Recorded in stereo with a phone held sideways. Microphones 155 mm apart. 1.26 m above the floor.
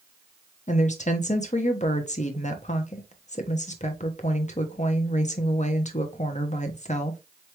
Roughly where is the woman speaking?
Left.